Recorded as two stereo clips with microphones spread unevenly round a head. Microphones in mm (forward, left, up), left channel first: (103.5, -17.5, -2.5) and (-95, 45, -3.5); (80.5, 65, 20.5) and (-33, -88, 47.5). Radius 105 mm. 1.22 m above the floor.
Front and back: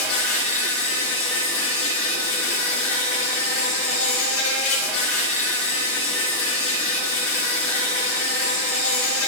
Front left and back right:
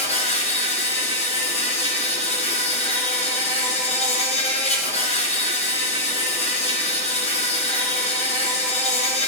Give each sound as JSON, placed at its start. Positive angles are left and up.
{"t": 0.0, "sound": "an insect", "azimuth_deg": -5, "distance_m": 3.0}